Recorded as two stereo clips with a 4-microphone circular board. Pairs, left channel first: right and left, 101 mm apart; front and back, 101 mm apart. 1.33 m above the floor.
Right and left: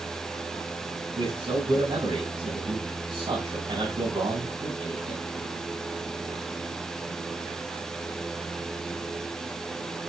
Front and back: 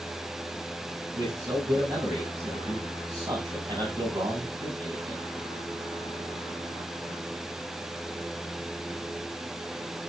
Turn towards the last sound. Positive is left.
turn(degrees=125)